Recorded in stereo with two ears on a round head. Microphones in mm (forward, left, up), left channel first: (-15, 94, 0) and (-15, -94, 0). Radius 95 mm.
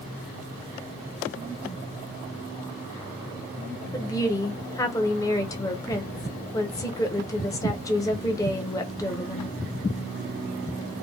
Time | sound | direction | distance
3.9 | a woman speaking | 15° left (ahead or behind) | 0.5 m